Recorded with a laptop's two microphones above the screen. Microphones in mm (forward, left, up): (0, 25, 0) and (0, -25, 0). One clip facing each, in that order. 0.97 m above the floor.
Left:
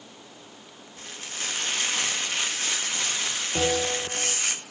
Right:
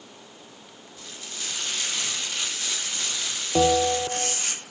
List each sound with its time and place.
1.0 s frying: 45° left (ahead or behind), 1.4 m
3.5 s a bell: 45° right (ahead or behind), 1.9 m